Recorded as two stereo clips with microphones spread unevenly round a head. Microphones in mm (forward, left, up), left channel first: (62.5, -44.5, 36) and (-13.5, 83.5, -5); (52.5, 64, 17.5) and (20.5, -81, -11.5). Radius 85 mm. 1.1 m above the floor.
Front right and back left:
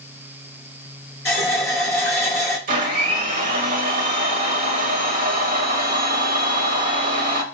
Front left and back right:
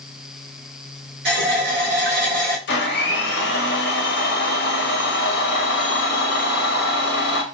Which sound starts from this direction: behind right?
A running tap, at 1.2 s.